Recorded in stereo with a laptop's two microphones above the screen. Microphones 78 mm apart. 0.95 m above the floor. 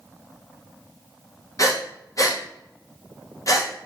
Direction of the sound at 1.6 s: 45° left (ahead or behind).